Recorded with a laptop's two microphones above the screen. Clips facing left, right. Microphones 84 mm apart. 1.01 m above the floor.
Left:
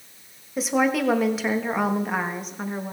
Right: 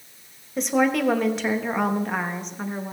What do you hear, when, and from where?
0.6 s a woman speaking: centre (ahead or behind), 0.8 m